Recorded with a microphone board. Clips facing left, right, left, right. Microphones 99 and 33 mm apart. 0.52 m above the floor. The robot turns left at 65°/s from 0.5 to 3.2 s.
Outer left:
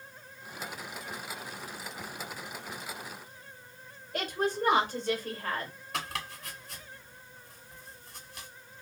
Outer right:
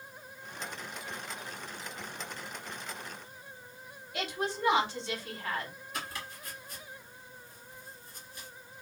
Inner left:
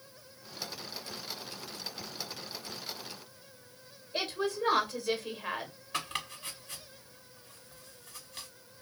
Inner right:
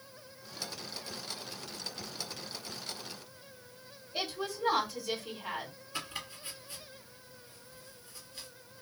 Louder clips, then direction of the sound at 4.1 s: Outer left 4 dB, inner left 4 dB; 45° left (ahead or behind).